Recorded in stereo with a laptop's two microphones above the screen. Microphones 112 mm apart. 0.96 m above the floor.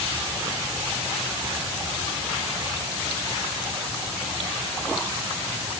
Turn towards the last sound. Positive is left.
No sound to turn to.